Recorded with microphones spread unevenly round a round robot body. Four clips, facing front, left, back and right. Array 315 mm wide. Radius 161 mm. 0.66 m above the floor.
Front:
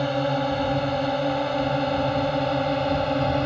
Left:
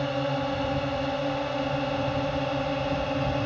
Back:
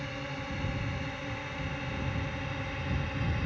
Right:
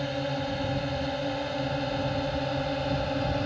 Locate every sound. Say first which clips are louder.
0.0 s a drone: left 3 dB, front 16 dB; 15° left; by 3.5 s 10° left